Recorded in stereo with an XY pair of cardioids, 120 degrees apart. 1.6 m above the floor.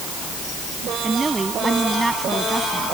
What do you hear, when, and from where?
1.0 s a woman speaking: 15° right